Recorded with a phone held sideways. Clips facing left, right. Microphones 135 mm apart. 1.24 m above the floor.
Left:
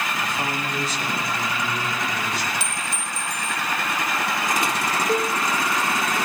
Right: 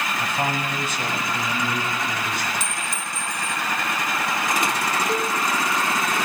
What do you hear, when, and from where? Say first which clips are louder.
0.2 s a man speaking: right 2 dB; 60° right (ahead or behind), 8.5 m
2.6 s a clink: even; 50° right (ahead or behind), 1.3 m
5.1 s a cowbell: left 2 dB; 5° left (ahead or behind), 3 m